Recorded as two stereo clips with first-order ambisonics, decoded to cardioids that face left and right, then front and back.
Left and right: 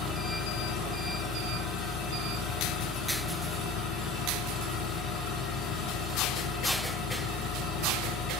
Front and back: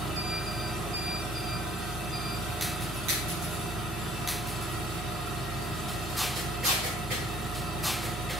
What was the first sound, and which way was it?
An engine running, 110° left.